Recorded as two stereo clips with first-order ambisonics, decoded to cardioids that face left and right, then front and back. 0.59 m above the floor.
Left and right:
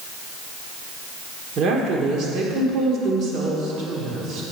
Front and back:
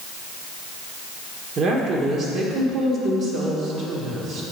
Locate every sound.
1.6 s a woman speaking: 130° right, 1.6 m